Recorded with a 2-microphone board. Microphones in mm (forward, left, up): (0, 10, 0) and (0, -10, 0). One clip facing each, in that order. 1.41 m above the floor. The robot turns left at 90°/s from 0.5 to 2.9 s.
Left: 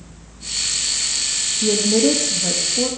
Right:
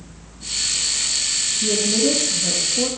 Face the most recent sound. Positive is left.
turn(degrees=-5)